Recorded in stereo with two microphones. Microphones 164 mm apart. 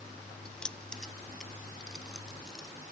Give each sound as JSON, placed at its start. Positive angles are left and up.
{"t": 0.5, "sound": "keys jangling", "side_deg": 5}